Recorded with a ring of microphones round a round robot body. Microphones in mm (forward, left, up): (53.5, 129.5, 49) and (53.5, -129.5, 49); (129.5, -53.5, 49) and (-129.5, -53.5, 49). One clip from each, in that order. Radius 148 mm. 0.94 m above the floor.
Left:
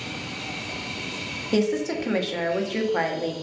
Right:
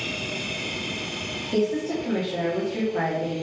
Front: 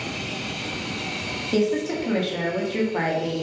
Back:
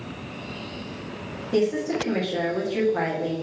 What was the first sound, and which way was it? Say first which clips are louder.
A woman speaking: left 1 dB, back 1 dB; 80° left.